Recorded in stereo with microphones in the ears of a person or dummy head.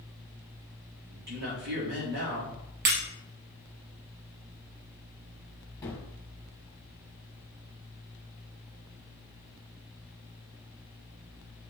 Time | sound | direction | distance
1.1 | a man speaking | 60° right (ahead or behind) | 4 m
2.9 | breaking glass | 55° right (ahead or behind) | 3 m
5.8 | a gunshot | 10° left (ahead or behind) | 1.6 m